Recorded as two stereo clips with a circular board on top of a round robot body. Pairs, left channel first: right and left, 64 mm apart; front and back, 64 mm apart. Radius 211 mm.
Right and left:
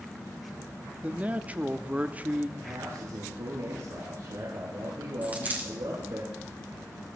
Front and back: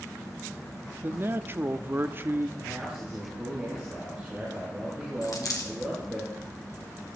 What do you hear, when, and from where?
1.0 s a man speaking: 145° left, 1.4 m
2.6 s a man speaking: 105° left, 7 m
5.2 s a dropped coin: 25° left, 3 m